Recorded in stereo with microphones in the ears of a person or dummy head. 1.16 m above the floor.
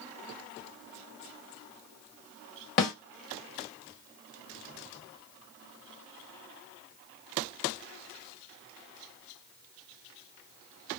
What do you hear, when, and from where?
2.8 s a snare drum: 35° left (ahead or behind), 1.0 m